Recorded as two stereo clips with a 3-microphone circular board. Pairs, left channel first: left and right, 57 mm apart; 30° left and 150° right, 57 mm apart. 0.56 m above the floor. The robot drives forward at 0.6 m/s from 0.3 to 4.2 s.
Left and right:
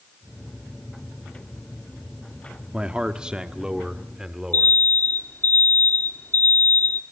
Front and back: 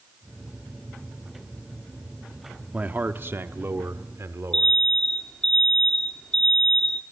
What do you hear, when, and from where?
2.7 s a man speaking: 135° right, 0.8 m; by 4.8 s 170° right, 1.3 m
4.5 s an alarm: 100° left, 1.7 m